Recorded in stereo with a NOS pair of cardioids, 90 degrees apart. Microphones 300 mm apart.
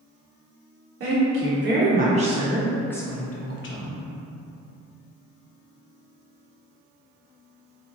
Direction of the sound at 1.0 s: 45° right.